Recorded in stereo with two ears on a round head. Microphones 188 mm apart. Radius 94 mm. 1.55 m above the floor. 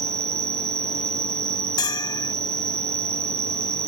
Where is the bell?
20° left (ahead or behind).